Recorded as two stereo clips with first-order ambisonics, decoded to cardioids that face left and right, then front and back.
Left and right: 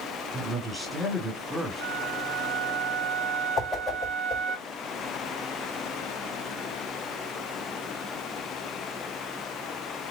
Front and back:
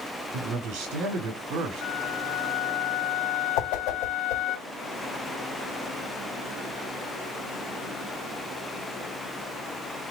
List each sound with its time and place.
0.3 s a man speaking: 170° right, 1.9 m
1.8 s a flute: 35° right, 1.1 m
3.6 s a whoosh: 10° left, 2.5 m